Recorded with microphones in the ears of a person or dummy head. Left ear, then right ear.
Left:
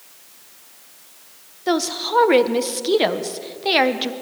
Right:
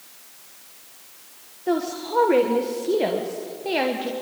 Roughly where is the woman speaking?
Left.